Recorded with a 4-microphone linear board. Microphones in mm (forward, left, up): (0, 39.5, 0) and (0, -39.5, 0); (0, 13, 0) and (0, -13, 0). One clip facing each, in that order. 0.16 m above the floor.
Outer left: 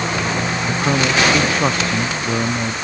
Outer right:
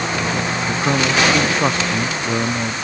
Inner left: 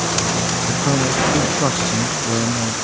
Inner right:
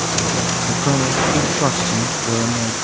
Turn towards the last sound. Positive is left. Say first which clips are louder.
# even, even
turn(degrees=0)  # may be behind; listen again after turning